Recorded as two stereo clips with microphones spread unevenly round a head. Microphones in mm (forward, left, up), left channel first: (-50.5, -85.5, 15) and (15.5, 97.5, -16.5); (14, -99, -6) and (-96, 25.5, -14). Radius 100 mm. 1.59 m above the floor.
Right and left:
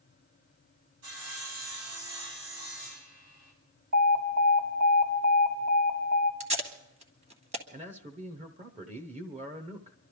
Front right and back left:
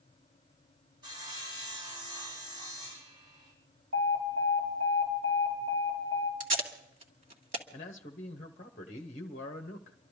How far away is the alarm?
About 5 m.